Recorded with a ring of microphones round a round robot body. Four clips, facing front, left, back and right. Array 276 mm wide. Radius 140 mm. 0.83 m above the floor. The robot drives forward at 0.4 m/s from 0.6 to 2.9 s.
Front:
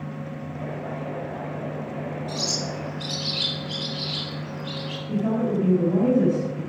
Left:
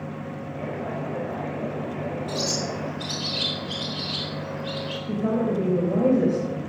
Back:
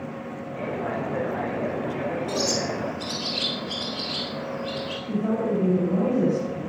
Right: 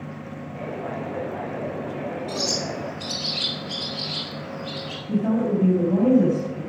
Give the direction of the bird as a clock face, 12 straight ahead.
7 o'clock.